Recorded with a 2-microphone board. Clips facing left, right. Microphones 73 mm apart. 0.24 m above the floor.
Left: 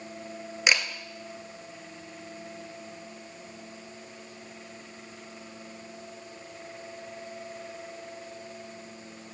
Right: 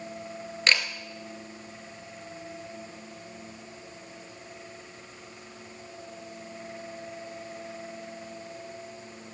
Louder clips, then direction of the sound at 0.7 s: Even; 15° left (ahead or behind).